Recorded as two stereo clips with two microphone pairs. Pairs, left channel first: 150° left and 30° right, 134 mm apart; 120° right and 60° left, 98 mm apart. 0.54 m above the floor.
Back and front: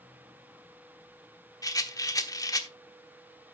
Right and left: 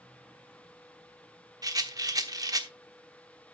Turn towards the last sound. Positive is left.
turn(degrees=95)